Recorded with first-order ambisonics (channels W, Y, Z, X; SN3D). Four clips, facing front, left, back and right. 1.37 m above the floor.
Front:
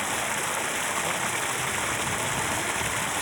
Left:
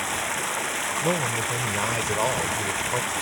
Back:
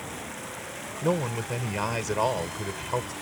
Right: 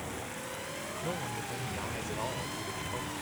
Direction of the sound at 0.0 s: 55° left.